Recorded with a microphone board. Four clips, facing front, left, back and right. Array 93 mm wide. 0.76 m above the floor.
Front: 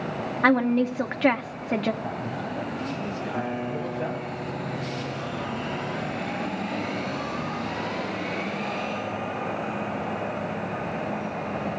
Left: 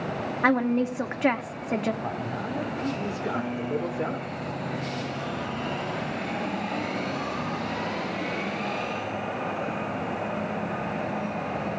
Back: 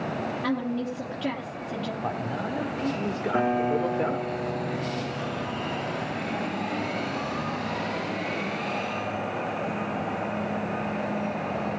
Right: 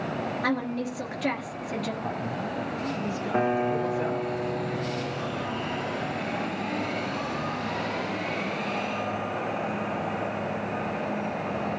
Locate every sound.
0.4 s a woman speaking: 30° left, 1.3 m
2.0 s a man speaking: 150° left, 2.5 m
3.3 s a guitar: 125° right, 1.7 m